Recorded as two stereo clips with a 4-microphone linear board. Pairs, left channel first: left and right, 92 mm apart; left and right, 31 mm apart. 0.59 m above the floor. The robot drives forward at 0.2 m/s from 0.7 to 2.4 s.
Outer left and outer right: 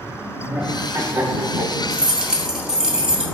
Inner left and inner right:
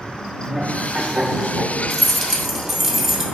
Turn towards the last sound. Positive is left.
turn(degrees=-10)  # may be behind; listen again after turning